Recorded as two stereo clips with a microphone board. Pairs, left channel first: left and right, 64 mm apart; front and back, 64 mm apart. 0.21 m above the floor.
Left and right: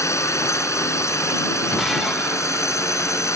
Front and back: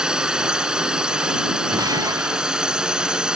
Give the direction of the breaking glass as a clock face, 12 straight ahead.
6 o'clock.